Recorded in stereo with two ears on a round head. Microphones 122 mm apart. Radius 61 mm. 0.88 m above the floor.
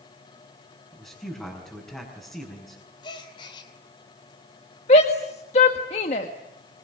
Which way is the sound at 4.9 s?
50° left (ahead or behind).